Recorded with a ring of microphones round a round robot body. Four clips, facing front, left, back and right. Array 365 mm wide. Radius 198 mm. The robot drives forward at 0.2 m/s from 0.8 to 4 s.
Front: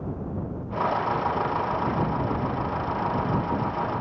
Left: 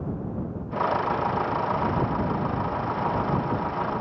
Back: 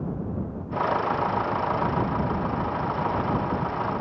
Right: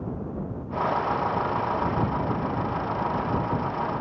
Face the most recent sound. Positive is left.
No sound to turn to.